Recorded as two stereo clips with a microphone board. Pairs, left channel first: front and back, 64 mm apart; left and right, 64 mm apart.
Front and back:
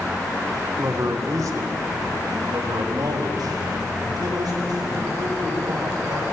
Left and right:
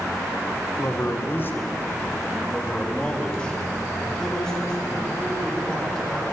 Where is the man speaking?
130° left, 1.7 m; by 6.2 s 175° left, 7.5 m.